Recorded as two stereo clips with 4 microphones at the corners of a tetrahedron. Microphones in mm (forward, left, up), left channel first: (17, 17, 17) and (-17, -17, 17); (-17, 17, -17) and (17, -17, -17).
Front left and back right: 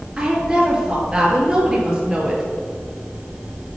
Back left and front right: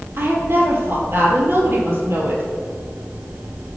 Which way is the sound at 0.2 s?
65° right.